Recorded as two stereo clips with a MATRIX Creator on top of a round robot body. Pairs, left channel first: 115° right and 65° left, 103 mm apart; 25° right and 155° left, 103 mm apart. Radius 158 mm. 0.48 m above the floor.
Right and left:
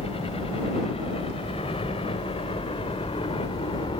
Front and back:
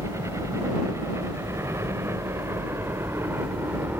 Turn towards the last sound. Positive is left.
turn(degrees=-135)